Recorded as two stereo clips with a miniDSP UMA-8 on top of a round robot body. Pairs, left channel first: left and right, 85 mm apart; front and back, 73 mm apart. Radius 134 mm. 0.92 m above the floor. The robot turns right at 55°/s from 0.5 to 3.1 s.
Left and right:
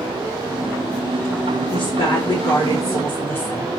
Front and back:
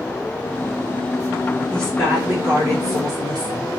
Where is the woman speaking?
80° left, 2.5 m; by 3.7 s 155° left, 2.5 m.